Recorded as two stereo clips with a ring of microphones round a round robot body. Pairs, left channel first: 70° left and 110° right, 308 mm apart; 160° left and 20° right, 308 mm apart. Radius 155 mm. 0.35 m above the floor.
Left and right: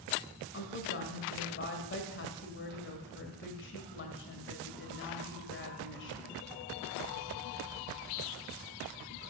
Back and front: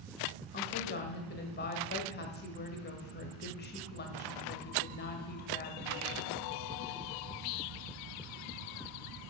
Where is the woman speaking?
110° left, 1.8 m.